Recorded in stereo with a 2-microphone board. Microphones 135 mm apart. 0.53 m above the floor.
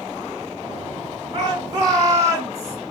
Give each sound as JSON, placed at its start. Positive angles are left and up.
{"t": 1.3, "sound": "a shout", "side_deg": -30, "distance_m": 1.6}